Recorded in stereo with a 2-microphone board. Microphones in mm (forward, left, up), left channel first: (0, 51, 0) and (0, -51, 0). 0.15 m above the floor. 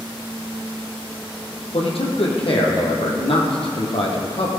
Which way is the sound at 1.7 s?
75° left (ahead or behind).